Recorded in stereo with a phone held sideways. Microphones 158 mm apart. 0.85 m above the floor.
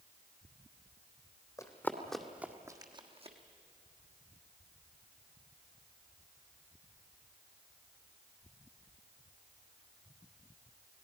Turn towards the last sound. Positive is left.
turn(degrees=-45)  # may be behind; listen again after turning